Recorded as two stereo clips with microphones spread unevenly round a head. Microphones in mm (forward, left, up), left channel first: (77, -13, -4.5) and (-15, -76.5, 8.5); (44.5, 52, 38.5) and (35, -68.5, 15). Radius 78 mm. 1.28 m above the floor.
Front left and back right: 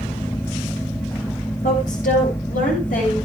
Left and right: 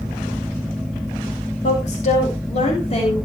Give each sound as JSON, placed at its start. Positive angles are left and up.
{"t": 1.6, "sound": "a woman speaking", "azimuth_deg": 55, "distance_m": 7.0}